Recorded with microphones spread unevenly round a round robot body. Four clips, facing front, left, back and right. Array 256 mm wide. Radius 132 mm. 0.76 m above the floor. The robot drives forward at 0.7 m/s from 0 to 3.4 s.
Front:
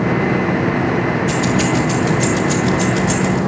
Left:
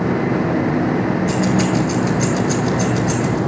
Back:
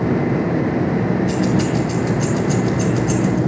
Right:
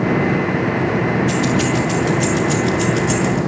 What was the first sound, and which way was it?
Keys jangling, 65° left.